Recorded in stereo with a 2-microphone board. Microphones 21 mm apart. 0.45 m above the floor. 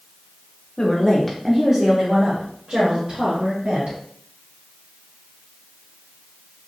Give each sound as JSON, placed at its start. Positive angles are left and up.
{"t": 0.8, "sound": "a woman speaking", "side_deg": 35, "distance_m": 0.9}